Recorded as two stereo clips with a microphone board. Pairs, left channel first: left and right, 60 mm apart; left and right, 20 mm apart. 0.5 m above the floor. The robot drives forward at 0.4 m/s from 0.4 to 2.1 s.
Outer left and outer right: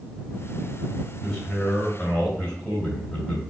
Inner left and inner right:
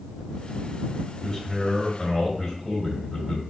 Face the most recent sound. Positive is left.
turn(degrees=15)  # may be behind; listen again after turning